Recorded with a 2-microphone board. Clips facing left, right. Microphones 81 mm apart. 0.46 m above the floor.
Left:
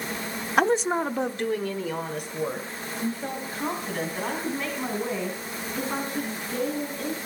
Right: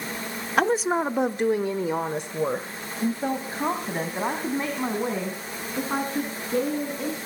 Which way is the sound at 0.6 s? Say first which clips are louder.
Even; centre (ahead or behind).